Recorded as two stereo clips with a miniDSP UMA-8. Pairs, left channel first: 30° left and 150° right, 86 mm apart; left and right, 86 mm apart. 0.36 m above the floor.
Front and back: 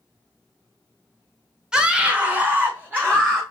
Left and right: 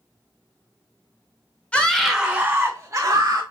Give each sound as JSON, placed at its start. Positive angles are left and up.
{"t": 1.7, "sound": "a scream", "azimuth_deg": 145, "distance_m": 0.9}